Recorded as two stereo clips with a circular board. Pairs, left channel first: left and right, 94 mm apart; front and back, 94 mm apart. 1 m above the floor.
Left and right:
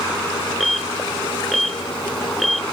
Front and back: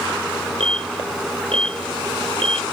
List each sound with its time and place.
0.6 s an alarm: straight behind